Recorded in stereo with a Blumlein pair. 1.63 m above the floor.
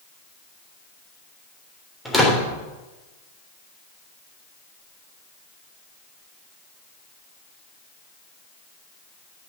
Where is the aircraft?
I don't hear an aircraft.